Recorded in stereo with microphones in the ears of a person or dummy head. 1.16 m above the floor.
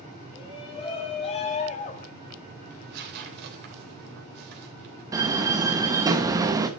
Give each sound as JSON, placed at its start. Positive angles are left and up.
{"t": 0.3, "sound": "a shout", "side_deg": 30, "distance_m": 4.0}
{"t": 2.7, "sound": "tearing paper", "side_deg": -55, "distance_m": 3.0}
{"t": 5.1, "sound": "a door slam", "side_deg": -20, "distance_m": 1.1}